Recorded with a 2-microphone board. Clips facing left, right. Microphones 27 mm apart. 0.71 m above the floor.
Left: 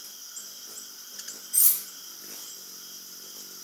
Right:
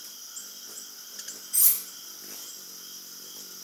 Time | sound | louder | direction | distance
1.5 | cutlery clinking | even | centre (ahead or behind) | 0.7 m